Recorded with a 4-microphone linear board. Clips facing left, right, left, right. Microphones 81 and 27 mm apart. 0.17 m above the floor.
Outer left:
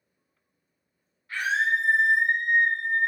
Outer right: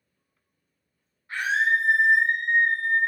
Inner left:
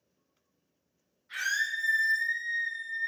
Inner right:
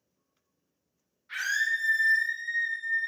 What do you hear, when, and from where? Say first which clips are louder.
1.3 s a scream: outer right 2 dB, inner right 2 dB; 25° right (ahead or behind), 1.8 m